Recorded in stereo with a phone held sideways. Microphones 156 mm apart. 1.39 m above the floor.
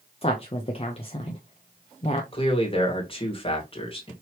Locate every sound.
0.2 s a woman speaking: 40° left (ahead or behind), 0.7 m
2.3 s a man speaking: 35° left (ahead or behind), 1.8 m